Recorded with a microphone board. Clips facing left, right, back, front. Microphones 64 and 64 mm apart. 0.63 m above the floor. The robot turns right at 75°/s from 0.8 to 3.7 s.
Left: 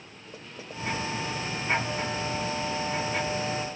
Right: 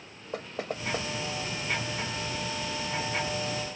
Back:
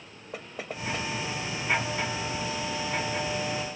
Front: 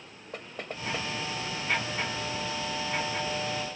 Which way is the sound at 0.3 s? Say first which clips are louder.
Right 7 dB, back 1 dB; 95° right.